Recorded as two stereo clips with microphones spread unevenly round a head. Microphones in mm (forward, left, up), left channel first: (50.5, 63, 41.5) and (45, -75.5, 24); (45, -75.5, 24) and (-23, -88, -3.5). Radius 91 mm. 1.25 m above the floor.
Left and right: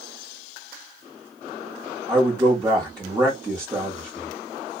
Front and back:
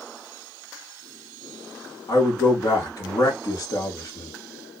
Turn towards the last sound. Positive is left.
turn(degrees=-25)